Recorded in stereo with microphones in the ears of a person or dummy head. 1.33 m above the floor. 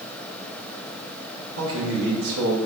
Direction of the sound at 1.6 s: 75° right (ahead or behind).